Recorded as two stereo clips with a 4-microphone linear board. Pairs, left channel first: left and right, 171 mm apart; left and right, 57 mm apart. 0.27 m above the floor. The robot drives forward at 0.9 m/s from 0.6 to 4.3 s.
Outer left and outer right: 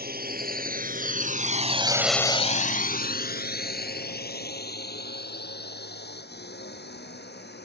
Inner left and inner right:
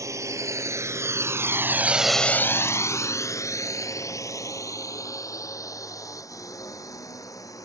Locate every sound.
0.0 s a drone: 65° right (ahead or behind); by 7.7 s 75° left (ahead or behind)